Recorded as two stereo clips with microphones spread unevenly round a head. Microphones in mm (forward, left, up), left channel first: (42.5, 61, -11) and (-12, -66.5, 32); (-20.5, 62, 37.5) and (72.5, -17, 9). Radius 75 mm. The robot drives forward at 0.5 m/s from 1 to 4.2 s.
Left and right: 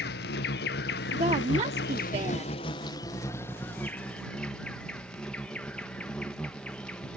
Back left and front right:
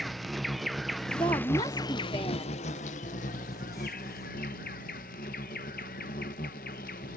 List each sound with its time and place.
0.0 s an insect: 55° left; by 7.2 s 155° left
1.1 s a woman speaking: 160° right; by 2.5 s 165° right